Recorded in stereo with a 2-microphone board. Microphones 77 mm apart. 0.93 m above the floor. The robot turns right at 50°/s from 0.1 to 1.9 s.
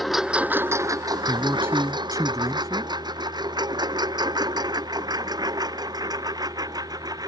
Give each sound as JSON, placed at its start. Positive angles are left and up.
{"t": 0.0, "sound": "a lawn mower", "side_deg": 0}
{"t": 1.3, "sound": "a man speaking", "azimuth_deg": -165}